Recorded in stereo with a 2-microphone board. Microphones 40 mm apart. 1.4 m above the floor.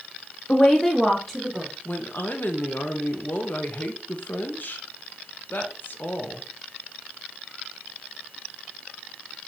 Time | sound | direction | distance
0.5 | a woman speaking | 40° left (ahead or behind) | 0.6 m
1.9 | a woman speaking | 55° left (ahead or behind) | 0.9 m